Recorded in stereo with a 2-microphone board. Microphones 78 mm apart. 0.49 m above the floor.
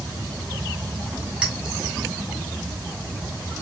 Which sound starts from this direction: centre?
A clink, at 1.4 s.